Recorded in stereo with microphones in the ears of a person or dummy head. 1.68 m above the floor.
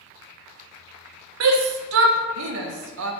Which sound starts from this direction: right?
A shout, at 1.4 s.